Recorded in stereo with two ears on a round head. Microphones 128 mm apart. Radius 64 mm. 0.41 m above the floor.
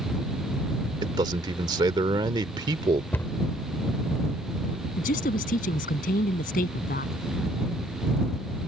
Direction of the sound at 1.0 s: 30° right (ahead or behind).